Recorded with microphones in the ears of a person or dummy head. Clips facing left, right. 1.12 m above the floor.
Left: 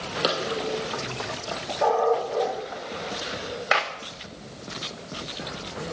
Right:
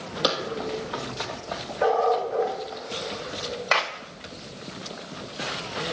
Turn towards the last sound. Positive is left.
turn(degrees=15)  # may be behind; listen again after turning